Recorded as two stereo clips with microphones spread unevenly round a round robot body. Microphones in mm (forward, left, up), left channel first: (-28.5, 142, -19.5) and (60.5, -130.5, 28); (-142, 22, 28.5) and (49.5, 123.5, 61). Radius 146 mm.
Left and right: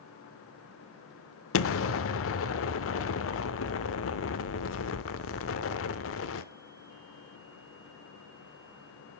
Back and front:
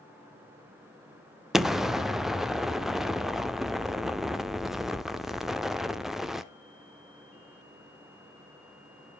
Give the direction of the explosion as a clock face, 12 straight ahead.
8 o'clock.